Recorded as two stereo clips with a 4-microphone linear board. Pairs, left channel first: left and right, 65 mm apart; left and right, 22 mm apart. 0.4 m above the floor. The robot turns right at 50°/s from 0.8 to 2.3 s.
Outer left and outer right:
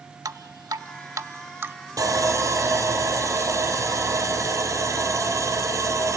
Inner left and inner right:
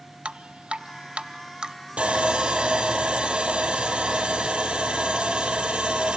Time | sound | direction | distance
0.2 | dripping | 75° right (ahead or behind) | 0.5 m
2.0 | sawing | 75° right (ahead or behind) | 2.5 m